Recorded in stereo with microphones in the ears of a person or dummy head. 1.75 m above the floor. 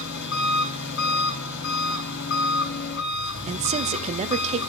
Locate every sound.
0.0 s an engine running: 70° left (ahead or behind), 3.5 m
3.5 s a man speaking: 35° right (ahead or behind), 0.7 m